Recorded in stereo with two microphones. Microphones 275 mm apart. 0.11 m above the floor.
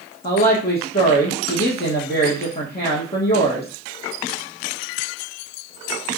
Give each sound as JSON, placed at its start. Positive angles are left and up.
{"t": 0.2, "sound": "a woman speaking", "side_deg": 35, "distance_m": 2.5}